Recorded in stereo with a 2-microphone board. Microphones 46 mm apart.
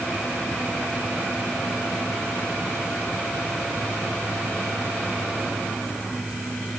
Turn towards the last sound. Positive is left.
No sound to turn to.